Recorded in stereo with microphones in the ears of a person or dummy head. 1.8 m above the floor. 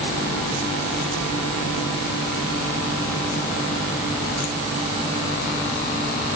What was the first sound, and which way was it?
Only background noise.